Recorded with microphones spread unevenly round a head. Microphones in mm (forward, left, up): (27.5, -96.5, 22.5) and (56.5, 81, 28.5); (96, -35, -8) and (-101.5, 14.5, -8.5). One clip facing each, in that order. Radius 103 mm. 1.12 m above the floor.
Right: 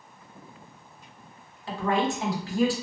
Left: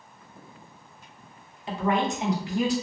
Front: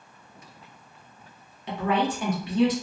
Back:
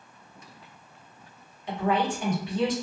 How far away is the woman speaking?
About 1.0 m.